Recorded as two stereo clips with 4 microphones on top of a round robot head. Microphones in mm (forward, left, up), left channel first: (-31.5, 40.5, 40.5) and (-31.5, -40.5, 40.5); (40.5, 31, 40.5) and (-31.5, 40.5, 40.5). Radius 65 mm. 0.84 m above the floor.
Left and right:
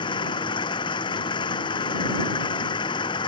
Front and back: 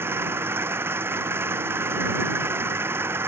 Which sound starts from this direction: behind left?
An engine running, at 0.0 s.